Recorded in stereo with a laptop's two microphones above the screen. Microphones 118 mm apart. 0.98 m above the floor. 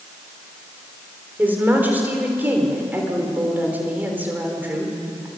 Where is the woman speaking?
15° right (ahead or behind), 3.5 m.